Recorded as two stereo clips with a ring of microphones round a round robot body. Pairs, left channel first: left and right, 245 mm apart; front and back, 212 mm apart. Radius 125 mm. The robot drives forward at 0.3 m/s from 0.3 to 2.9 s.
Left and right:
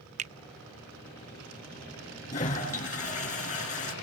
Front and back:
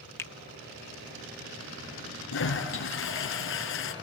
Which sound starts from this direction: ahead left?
A toilet flushing, at 2.3 s.